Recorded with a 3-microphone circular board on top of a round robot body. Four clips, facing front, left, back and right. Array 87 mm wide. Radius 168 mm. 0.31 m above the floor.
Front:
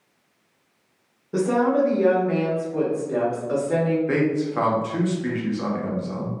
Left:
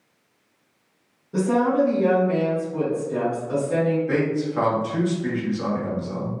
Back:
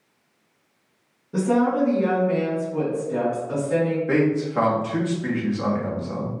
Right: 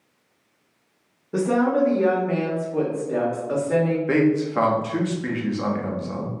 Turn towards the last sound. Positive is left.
turn(degrees=-90)